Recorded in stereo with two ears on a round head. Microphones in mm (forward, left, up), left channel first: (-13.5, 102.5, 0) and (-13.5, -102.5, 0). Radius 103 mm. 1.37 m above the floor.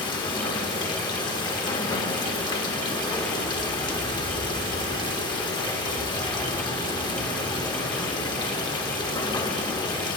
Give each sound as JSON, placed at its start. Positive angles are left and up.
{"t": 0.0, "sound": "running water", "side_deg": 20, "distance_m": 1.3}